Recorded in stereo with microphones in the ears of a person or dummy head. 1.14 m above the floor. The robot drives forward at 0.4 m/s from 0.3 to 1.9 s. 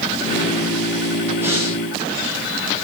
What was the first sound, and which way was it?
Breathing, 15° right (ahead or behind).